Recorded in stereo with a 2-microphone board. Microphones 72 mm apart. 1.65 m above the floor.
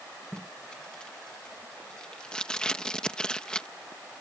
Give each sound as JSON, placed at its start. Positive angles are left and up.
{"t": 0.3, "sound": "tape being pulled", "side_deg": 10}